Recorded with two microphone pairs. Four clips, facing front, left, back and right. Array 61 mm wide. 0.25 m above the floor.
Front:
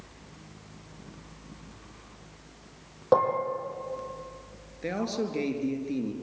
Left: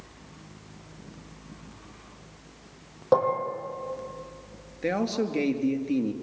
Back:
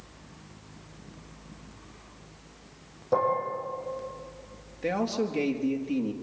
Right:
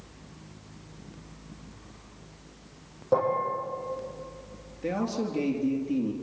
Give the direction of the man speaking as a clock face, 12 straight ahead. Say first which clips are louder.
Left 3 dB, back 2 dB; 8 o'clock.